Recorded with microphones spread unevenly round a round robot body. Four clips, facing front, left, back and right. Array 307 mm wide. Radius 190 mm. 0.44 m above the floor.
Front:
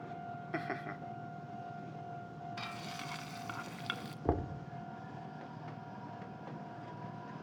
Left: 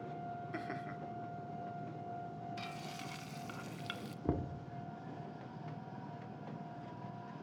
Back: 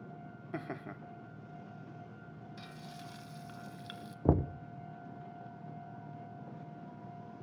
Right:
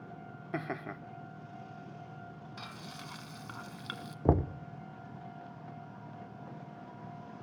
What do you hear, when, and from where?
0.5 s laughter: 65° right, 0.9 m
2.6 s frying: 30° right, 1.8 m
4.2 s knocking: 110° right, 0.5 m